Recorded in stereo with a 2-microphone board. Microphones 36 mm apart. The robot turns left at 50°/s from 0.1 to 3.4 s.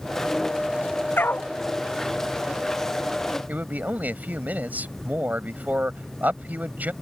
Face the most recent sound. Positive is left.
turn(degrees=-55)  # may be behind; listen again after turning